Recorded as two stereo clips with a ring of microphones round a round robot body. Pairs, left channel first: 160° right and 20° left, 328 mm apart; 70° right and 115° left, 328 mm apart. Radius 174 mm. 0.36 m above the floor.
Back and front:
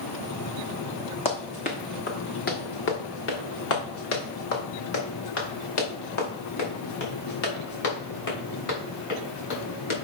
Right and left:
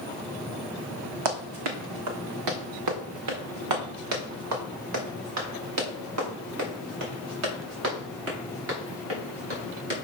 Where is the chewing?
I don't hear chewing.